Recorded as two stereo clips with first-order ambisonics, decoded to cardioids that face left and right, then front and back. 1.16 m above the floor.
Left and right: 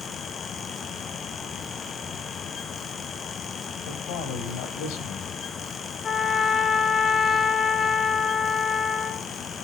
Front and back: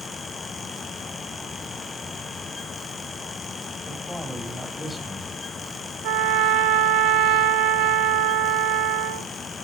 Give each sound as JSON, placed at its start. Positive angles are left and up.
{"t": 3.9, "sound": "a man speaking", "azimuth_deg": 90, "distance_m": 5.5}
{"t": 6.0, "sound": "a trumpet", "azimuth_deg": 160, "distance_m": 0.8}